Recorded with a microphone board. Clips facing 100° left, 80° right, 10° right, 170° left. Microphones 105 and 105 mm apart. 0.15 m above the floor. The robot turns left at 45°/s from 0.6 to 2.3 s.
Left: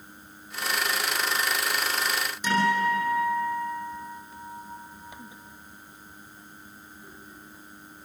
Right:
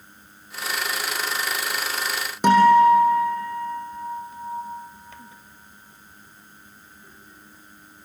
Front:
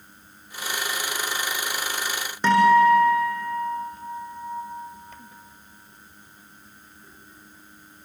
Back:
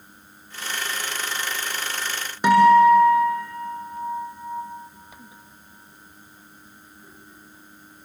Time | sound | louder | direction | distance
2.4 | a guitar | right 11 dB, back 3 dB | 115° right | 6 m